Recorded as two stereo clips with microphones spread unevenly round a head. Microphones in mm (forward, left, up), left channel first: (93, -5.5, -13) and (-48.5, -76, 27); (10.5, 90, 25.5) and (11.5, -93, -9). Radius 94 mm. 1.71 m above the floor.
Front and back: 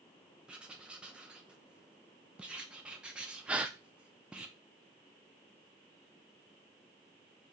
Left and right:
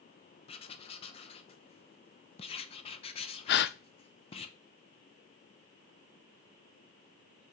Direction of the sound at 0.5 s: 135° left.